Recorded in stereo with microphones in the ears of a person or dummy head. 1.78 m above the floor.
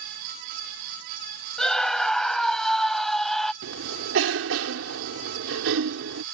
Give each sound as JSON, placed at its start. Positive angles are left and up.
{"t": 1.6, "sound": "a scream", "side_deg": 5}
{"t": 3.6, "sound": "a cough", "side_deg": -75}